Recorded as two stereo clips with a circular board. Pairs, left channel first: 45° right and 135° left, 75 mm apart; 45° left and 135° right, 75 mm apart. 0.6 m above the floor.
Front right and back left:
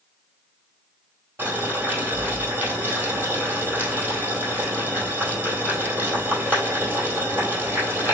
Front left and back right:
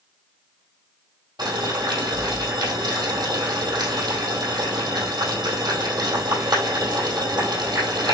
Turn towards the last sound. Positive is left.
turn(degrees=-160)